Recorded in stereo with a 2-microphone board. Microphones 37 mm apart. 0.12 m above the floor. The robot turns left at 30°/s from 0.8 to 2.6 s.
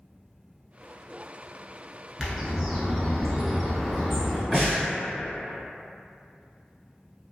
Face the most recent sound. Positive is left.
turn(degrees=0)  # may be behind; listen again after turning